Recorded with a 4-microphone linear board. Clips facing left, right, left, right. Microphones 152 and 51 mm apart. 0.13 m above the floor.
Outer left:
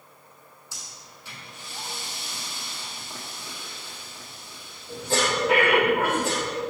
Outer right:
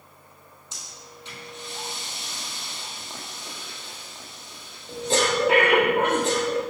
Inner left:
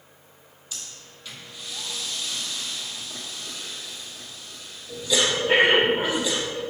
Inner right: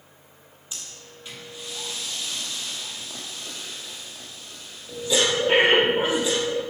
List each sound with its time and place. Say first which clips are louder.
0.7 s breathing: outer right 3 dB, even; 20° right (ahead or behind), 1.6 m